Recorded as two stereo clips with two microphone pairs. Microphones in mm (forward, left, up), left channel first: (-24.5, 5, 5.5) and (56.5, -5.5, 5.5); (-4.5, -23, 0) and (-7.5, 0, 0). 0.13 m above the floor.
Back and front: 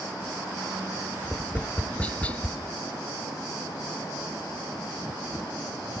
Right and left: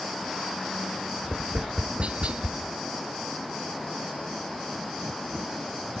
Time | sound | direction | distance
1.2 | tapping | 100° left | 0.5 m